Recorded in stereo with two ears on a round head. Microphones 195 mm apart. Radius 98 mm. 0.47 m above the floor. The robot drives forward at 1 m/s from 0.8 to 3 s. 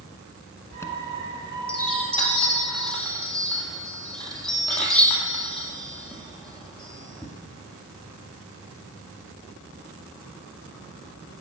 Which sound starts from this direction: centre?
A chime, at 0.7 s.